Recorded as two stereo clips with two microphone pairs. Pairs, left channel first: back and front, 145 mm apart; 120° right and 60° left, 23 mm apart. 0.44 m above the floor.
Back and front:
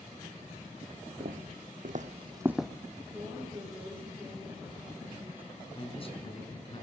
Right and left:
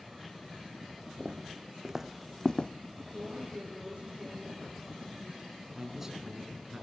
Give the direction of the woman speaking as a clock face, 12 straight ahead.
10 o'clock.